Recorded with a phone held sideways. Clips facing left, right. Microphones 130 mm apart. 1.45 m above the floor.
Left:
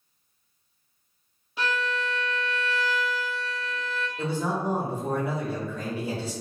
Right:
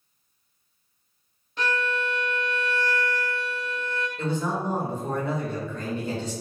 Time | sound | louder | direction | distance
1.6 | a violin | right 1 dB | 5° left (ahead or behind) | 0.6 m
4.2 | a man speaking | even | 10° left (ahead or behind) | 1.1 m